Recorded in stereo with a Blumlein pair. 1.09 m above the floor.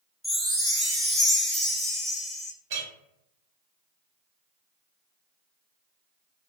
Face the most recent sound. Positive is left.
turn(degrees=-55)